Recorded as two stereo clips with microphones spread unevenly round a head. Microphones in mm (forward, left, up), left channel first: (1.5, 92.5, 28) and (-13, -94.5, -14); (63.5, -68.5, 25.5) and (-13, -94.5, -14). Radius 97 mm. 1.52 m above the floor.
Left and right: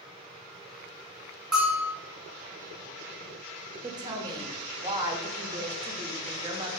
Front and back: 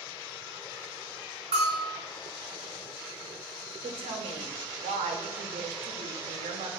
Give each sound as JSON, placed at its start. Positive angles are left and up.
{"t": 1.5, "sound": "a bell", "azimuth_deg": 170, "distance_m": 1.1}
{"t": 3.8, "sound": "a woman speaking", "azimuth_deg": -170, "distance_m": 0.5}